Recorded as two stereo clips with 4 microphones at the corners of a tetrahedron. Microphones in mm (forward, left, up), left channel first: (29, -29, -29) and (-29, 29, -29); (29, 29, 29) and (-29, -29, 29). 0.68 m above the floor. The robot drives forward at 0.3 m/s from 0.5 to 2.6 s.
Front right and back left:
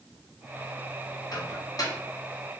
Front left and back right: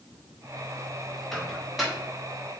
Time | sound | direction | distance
1.3 | a microwave | 40° right | 1.1 m